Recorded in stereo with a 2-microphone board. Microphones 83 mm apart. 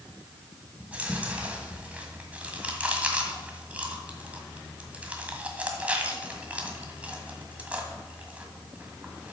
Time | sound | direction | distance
0.8 | chewing | 15° right (ahead or behind) | 1.6 m